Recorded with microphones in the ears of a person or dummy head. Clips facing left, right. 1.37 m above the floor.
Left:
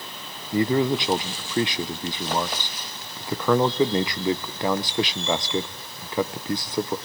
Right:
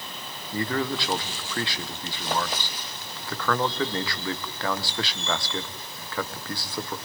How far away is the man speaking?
About 0.6 m.